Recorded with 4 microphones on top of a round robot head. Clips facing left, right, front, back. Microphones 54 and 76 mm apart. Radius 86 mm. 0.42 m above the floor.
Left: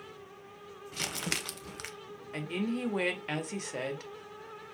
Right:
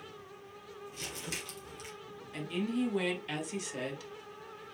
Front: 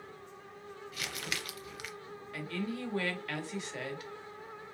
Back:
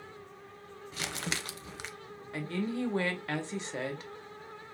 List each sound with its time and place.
0.9 s crumpling: 115° left, 0.6 m
2.3 s a woman speaking: 125° left, 1.5 m